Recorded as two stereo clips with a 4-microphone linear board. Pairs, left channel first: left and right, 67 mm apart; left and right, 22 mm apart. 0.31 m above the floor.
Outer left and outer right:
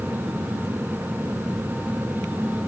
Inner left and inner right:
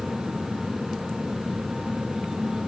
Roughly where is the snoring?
No snoring in this recording.